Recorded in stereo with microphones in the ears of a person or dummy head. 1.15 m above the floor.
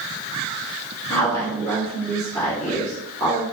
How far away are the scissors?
No scissors in this recording.